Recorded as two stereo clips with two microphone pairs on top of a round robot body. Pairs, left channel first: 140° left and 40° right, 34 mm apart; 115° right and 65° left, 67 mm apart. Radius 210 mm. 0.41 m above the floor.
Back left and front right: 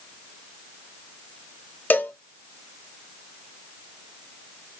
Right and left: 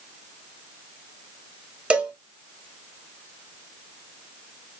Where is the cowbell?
140° left, 1.0 m.